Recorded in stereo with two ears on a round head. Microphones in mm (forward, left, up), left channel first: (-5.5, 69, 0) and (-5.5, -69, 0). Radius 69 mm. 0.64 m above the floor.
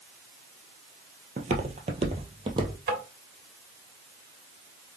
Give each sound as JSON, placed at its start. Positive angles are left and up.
{"t": 1.4, "sound": "footsteps", "side_deg": -50, "distance_m": 1.1}
{"t": 2.9, "sound": "tapping", "side_deg": -65, "distance_m": 1.8}